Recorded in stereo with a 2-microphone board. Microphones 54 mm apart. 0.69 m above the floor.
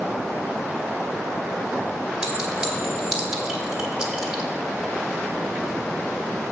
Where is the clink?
10° right (ahead or behind), 1.9 m.